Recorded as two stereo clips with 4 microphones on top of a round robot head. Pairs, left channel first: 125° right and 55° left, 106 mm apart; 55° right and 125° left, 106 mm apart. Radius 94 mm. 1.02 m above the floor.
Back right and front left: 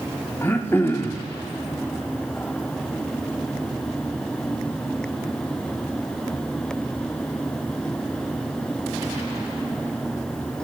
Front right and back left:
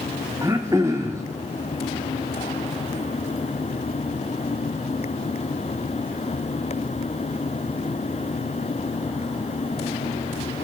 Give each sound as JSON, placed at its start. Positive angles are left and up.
{"t": 0.4, "sound": "throat clearing", "azimuth_deg": 175, "distance_m": 0.6}